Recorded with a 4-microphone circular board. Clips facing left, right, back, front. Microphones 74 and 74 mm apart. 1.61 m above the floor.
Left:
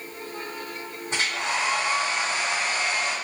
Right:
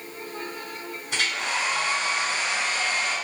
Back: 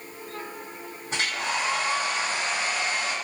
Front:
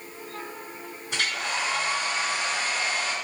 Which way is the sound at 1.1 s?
135° left.